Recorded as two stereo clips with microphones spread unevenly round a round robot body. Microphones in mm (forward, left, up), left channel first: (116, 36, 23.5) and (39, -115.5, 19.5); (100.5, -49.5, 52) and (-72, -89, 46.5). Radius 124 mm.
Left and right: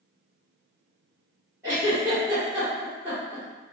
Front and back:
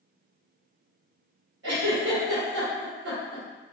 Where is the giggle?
165° left, 1.4 m.